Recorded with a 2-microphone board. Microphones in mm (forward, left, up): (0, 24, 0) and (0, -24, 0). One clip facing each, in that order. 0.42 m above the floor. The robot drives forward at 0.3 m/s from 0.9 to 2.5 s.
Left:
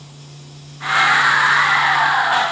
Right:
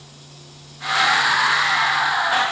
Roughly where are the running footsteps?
No running footsteps in this recording.